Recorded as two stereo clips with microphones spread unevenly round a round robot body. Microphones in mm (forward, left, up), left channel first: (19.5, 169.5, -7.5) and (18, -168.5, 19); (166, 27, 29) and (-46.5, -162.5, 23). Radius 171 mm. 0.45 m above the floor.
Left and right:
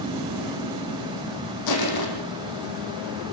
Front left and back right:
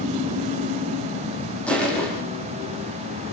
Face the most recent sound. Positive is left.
turn(degrees=130)